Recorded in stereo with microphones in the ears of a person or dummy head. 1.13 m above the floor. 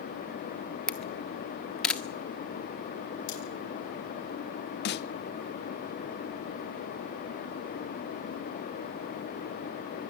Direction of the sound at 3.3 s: 80° left.